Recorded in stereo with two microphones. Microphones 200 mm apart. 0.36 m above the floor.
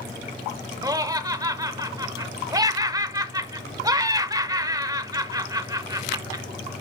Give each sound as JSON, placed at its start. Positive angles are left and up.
{"t": 0.8, "sound": "laughter", "side_deg": -20, "distance_m": 0.9}